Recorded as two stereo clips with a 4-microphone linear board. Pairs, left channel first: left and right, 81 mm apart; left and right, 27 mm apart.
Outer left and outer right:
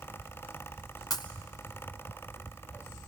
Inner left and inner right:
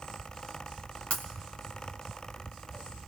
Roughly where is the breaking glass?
Left.